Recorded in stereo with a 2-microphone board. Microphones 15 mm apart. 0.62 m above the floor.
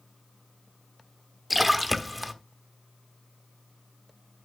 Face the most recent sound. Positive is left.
turn(degrees=0)  # may be behind; listen again after turning